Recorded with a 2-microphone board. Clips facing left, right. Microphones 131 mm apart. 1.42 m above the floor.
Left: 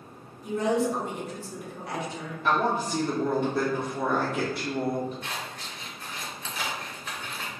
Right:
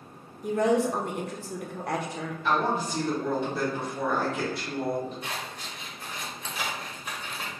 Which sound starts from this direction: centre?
Scissors, at 5.2 s.